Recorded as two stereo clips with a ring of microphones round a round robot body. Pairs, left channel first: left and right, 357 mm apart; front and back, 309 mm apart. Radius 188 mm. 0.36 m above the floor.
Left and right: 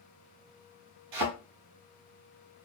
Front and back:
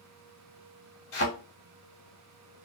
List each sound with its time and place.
1.1 s a thud: 50° right, 1.1 m